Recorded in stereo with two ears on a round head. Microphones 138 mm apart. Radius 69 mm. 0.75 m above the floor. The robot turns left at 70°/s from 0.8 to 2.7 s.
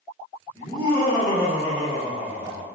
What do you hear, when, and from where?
0.6 s laughter: 145° left, 1.4 m; by 2.6 s 15° left, 1.4 m